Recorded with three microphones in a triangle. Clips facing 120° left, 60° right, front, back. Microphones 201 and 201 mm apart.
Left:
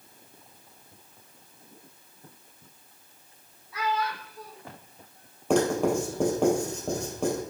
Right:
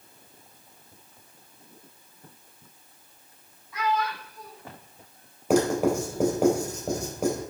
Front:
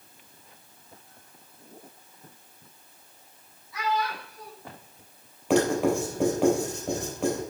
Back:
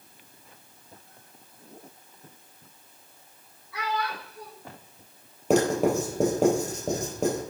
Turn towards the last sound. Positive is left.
turn(degrees=-140)